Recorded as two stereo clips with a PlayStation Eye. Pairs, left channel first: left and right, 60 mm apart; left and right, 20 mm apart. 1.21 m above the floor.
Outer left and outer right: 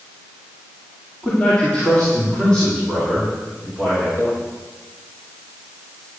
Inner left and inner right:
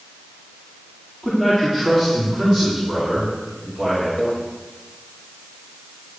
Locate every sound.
1.2 s a man speaking: 20° left (ahead or behind), 3.5 m; by 4.1 s 15° left (ahead or behind), 6.5 m
4.2 s a microwave: 75° left (ahead or behind), 5.5 m